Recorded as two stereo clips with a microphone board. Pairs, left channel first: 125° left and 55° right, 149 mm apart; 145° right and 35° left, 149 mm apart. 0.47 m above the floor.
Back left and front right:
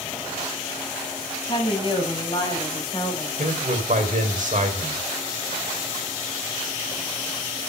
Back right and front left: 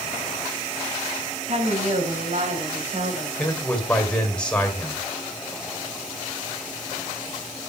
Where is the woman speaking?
70° left, 3.5 m.